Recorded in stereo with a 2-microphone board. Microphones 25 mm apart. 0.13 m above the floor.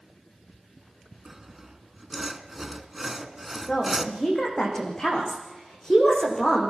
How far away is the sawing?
About 1.2 m.